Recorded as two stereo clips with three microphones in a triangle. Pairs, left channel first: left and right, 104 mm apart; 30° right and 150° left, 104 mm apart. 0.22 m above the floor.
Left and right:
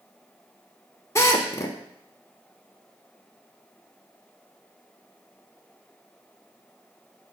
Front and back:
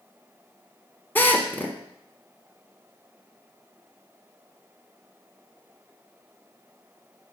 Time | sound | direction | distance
1.1 | a drill | 35° left | 1.0 m